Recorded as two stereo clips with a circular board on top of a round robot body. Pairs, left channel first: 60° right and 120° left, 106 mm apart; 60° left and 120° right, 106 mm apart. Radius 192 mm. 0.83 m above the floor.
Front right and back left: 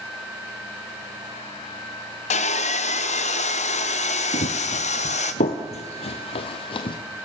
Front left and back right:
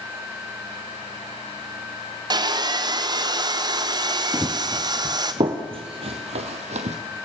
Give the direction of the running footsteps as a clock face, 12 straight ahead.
1 o'clock.